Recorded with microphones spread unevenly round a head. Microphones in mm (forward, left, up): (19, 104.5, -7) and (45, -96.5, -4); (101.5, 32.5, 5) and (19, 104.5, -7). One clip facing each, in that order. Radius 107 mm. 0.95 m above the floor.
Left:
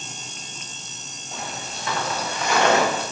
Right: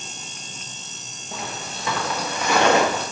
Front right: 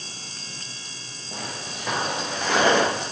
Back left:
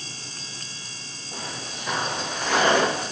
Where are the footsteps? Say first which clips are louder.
Right 2 dB, front right 1 dB; 70° right, 5 m; by 3.0 s 90° right, 6 m.